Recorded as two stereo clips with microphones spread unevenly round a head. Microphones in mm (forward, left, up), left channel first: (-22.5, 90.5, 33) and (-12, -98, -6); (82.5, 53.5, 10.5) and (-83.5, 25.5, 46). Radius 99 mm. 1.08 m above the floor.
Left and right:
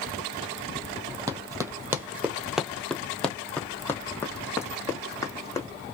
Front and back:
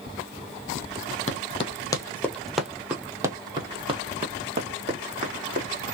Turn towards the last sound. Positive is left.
turn(degrees=160)